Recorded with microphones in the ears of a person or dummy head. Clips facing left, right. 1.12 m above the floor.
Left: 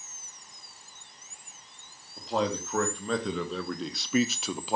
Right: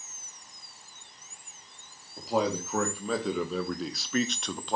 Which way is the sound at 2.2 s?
10° right (ahead or behind).